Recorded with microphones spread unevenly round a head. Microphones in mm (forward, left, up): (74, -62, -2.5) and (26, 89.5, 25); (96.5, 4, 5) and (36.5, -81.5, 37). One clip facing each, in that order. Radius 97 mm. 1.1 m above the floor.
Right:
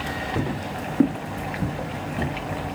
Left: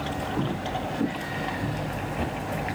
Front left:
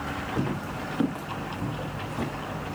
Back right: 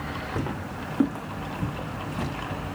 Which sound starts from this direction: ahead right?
Footsteps, at 0.4 s.